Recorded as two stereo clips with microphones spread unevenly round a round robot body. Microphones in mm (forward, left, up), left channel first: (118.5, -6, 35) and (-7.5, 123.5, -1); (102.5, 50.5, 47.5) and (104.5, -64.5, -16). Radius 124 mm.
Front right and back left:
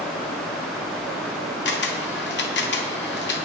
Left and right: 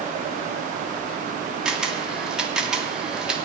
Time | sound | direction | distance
1.6 | a camera shutter | 30° right | 1.4 m